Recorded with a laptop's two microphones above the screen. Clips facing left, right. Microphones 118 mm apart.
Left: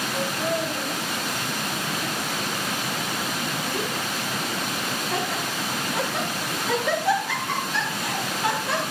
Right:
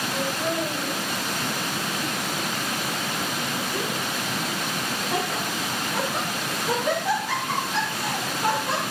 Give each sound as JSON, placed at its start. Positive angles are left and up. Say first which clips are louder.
{"t": 0.1, "sound": "laughter", "louder": "left 1 dB", "side_deg": -10, "distance_m": 4.0}